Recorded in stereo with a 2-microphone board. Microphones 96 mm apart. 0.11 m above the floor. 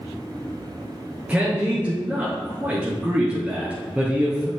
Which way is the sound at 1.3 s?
15° right (ahead or behind).